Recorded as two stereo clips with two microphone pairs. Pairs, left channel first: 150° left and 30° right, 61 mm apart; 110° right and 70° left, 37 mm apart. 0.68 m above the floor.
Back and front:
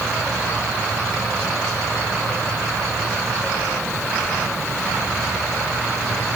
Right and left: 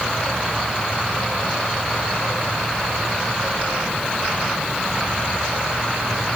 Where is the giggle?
No giggle in this recording.